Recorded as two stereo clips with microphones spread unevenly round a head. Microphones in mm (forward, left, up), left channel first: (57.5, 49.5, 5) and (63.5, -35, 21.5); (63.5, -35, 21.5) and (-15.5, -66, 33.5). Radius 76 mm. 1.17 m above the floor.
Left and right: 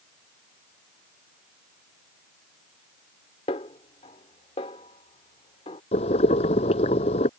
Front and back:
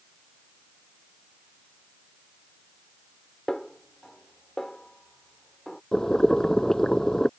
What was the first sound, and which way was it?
A snare drum, 115° left.